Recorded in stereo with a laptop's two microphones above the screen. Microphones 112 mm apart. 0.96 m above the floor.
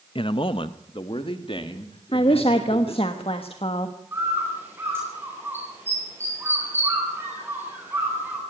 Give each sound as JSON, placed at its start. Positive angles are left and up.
{"t": 0.1, "sound": "a man speaking", "side_deg": 50, "distance_m": 0.6}
{"t": 2.1, "sound": "a woman speaking", "side_deg": 60, "distance_m": 1.2}
{"t": 4.1, "sound": "a bird", "side_deg": -20, "distance_m": 10.0}